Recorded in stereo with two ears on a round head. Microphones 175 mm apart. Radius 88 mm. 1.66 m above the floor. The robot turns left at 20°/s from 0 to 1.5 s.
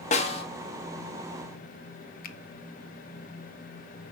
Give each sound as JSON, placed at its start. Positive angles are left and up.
{"t": 0.1, "sound": "a snare drum", "side_deg": 35, "distance_m": 1.7}
{"t": 2.2, "sound": "a finger snap", "side_deg": 50, "distance_m": 1.2}